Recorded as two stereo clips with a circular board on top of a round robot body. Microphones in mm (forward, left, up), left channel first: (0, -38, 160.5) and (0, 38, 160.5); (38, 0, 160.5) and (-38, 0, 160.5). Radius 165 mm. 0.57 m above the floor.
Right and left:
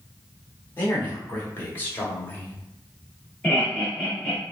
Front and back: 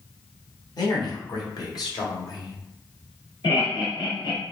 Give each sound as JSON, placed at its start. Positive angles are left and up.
{"t": 0.8, "sound": "a man speaking", "azimuth_deg": -30, "distance_m": 3.5}
{"t": 3.4, "sound": "laughter", "azimuth_deg": -20, "distance_m": 3.5}